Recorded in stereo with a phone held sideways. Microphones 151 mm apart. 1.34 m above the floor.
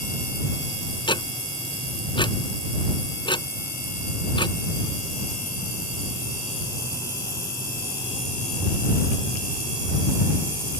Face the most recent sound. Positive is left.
turn(degrees=30)  # may be behind; listen again after turning